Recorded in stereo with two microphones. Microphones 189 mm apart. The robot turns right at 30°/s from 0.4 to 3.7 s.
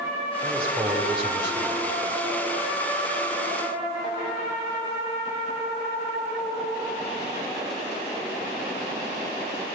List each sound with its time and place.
0.4 s a man speaking: 25° right (ahead or behind), 1.6 m; by 1.8 s 20° right (ahead or behind), 1.6 m